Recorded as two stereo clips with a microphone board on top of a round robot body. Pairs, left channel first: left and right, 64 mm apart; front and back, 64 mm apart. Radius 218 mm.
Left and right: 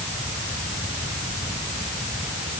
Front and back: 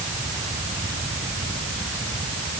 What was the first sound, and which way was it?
Only background noise.